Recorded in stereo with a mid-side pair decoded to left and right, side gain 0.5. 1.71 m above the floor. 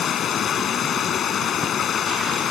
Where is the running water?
55° left.